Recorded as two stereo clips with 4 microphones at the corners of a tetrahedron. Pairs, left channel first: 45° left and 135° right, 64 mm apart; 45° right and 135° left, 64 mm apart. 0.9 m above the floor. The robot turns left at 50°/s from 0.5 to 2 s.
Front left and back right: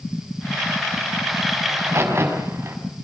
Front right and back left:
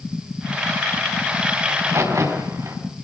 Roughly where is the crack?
Behind.